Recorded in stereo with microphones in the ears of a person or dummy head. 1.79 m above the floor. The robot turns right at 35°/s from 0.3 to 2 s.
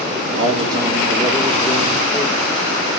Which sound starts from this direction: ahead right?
A man speaking, at 0.4 s.